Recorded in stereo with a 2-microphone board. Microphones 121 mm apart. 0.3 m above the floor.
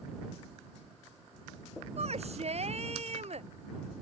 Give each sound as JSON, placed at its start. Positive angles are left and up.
{"t": 2.0, "sound": "a shout", "side_deg": -60}